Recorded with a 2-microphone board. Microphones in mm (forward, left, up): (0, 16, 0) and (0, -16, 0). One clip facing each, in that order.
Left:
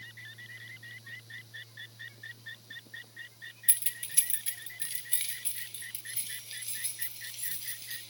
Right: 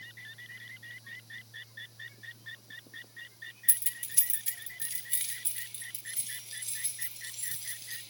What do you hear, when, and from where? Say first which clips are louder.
3.7 s keys jangling: left 3 dB; 40° left (ahead or behind), 0.8 m; by 8.0 s 20° left (ahead or behind), 5 m